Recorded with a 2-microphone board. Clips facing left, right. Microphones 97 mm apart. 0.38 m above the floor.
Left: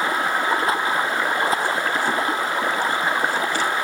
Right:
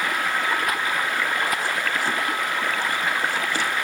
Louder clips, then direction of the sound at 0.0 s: Left 3 dB; 25° left (ahead or behind).